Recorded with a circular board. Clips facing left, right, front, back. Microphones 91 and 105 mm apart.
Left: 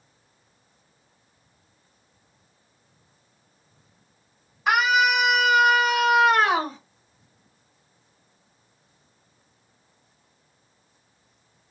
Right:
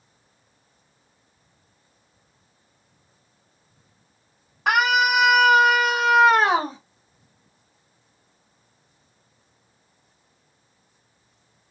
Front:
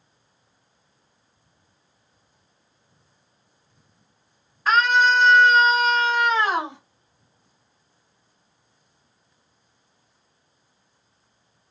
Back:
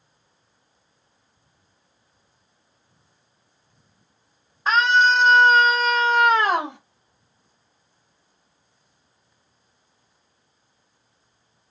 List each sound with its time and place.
4.7 s a scream: 115° right, 2.0 m; by 6.8 s 155° right, 1.6 m